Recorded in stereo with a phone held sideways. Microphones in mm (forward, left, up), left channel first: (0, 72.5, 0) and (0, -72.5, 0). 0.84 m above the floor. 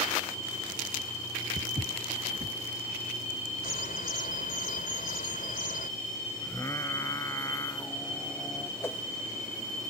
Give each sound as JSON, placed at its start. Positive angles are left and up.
{"t": 1.6, "sound": "footsteps", "side_deg": -60}
{"t": 3.6, "sound": "a bird", "side_deg": 70}
{"t": 6.4, "sound": "singing", "side_deg": 20}
{"t": 8.8, "sound": "a whoosh", "side_deg": 15}